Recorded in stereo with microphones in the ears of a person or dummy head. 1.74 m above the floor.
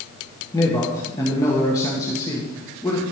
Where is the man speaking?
15° left (ahead or behind), 1.6 m.